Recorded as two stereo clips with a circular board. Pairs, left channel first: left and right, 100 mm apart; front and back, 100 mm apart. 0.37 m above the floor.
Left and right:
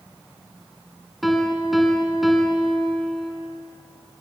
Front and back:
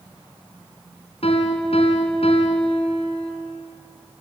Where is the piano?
Straight ahead, 3 m.